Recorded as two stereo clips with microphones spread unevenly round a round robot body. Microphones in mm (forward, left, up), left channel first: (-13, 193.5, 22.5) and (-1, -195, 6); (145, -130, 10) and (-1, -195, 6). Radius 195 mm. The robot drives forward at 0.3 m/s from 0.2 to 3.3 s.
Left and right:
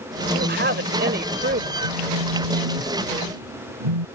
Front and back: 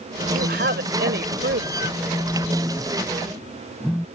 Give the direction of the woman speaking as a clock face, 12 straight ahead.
5 o'clock.